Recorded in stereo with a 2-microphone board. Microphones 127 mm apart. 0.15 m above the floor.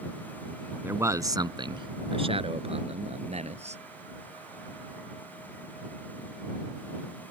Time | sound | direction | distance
0.8 | a man speaking | 15° right (ahead or behind) | ?